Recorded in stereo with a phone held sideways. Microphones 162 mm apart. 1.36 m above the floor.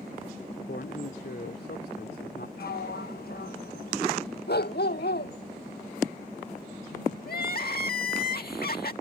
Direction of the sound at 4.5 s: 85° left.